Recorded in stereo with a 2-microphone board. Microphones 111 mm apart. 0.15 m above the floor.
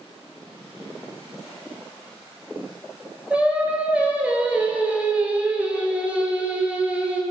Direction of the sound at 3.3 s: 15° right (ahead or behind).